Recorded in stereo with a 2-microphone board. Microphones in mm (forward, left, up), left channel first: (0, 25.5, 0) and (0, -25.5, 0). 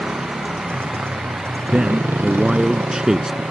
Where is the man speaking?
15° right (ahead or behind).